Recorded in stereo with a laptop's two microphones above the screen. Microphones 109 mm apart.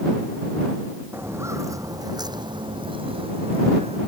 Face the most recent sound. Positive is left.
turn(degrees=-70)  # may be behind; listen again after turning